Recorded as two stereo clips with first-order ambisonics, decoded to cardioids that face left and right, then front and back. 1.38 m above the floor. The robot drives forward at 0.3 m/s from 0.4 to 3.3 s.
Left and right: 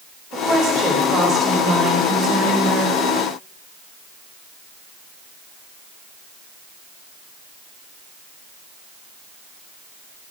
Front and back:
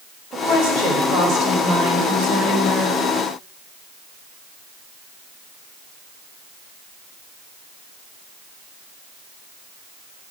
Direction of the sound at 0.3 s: 145° right.